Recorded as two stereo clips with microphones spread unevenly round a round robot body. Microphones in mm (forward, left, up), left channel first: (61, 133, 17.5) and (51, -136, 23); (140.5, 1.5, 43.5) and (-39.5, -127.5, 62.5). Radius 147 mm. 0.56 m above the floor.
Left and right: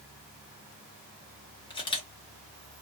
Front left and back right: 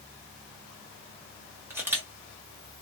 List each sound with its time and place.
1.7 s a camera shutter: 135° left, 0.9 m